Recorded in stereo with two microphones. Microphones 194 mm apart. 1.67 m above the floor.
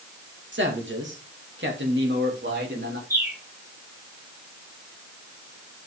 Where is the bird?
15° right (ahead or behind), 5 m.